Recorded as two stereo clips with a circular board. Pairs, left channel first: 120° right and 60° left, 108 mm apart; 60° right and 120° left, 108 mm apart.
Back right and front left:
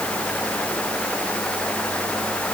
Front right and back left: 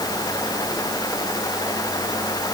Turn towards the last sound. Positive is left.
No sound to turn to.